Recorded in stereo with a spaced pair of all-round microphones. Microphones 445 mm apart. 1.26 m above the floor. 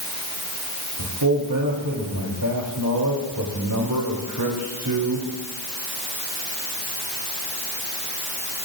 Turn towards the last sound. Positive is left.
turn(degrees=-45)  # may be behind; listen again after turning